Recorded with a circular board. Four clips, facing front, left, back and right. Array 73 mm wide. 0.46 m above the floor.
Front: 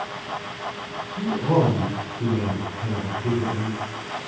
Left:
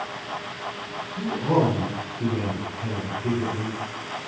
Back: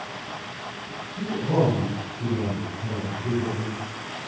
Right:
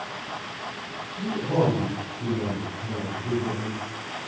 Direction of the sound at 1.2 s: 45° left.